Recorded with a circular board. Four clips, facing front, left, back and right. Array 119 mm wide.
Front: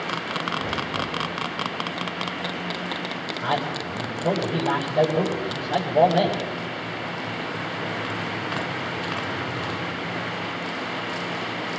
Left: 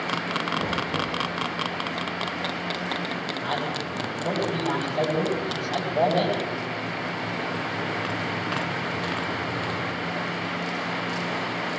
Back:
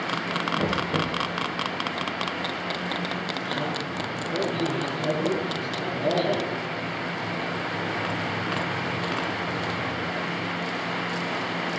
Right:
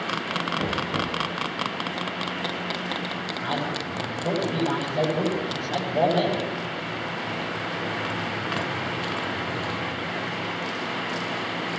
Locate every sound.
0.6 s knocking: 165° right, 3.5 m
3.4 s a man speaking: 5° right, 8.5 m